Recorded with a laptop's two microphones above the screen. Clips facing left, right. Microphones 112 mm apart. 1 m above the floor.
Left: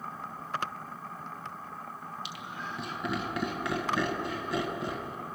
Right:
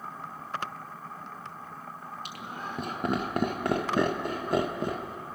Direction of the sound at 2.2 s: 50° right (ahead or behind).